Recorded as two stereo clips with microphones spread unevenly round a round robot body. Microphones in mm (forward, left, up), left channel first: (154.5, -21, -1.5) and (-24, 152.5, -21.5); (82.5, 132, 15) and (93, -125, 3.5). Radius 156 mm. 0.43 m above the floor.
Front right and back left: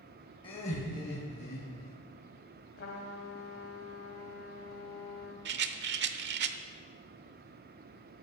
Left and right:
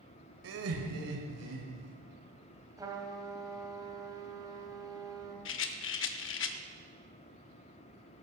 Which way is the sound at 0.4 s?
120° right.